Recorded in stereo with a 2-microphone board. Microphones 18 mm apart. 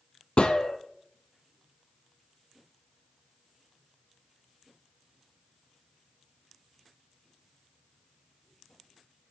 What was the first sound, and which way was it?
A gunshot, 70° left (ahead or behind).